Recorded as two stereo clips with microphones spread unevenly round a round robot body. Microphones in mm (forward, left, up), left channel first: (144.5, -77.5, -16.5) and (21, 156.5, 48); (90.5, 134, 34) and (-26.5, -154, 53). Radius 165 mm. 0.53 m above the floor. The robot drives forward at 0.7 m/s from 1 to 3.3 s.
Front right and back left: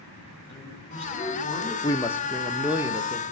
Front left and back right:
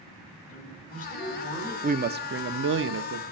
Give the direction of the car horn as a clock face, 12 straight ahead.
I don't hear a car horn.